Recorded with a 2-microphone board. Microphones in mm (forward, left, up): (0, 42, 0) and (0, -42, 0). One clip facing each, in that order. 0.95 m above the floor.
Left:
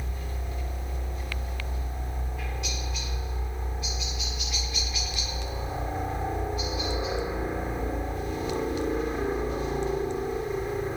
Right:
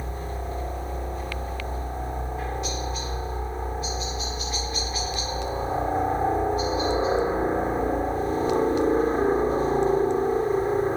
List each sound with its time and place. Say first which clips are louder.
0.0 s a helicopter: right 6 dB; 35° right (ahead or behind)